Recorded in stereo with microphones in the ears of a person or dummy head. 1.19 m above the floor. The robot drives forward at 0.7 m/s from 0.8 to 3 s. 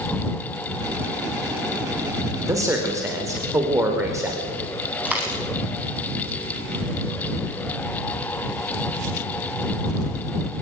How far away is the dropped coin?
About 5 m.